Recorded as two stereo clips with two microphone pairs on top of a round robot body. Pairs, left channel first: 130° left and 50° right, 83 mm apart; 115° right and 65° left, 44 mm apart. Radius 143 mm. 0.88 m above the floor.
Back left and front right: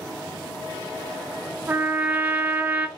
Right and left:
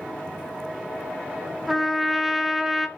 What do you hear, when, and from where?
1.7 s a trumpet: 30° right, 0.8 m